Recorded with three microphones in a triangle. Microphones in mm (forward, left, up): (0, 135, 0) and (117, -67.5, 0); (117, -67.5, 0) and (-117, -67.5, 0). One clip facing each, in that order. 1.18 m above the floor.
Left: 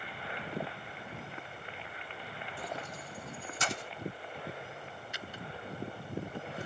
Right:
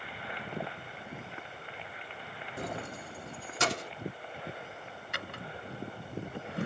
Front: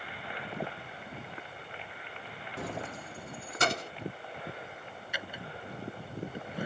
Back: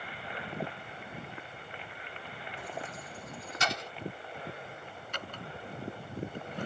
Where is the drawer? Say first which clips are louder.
Right 3 dB, even; 80° right.